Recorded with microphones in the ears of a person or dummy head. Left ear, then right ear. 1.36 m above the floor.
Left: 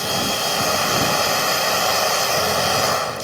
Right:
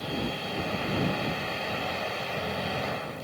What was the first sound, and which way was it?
A machine running, 45° left (ahead or behind).